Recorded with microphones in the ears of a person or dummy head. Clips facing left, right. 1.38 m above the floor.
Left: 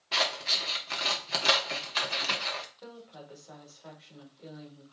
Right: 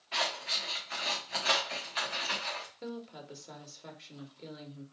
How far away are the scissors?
About 1.4 m.